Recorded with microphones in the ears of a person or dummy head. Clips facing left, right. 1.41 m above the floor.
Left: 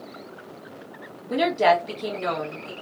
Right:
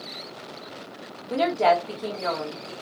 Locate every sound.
1.3 s a woman speaking: 10° left (ahead or behind), 1.6 m